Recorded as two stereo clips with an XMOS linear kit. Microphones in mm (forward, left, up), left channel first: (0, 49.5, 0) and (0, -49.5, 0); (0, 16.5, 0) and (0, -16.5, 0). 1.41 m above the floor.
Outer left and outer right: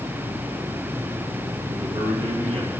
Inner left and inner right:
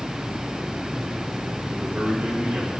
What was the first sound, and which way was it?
A man speaking, 70° right (ahead or behind).